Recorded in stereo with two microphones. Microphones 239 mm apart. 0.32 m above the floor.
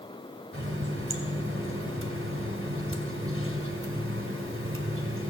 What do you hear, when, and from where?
0.5 s a running tap: 60° right (ahead or behind), 1.4 m